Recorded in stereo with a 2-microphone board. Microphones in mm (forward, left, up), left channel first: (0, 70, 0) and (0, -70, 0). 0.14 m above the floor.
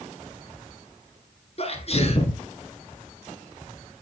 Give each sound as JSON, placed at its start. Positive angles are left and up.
{"t": 1.6, "sound": "a sneeze", "side_deg": 45, "distance_m": 1.5}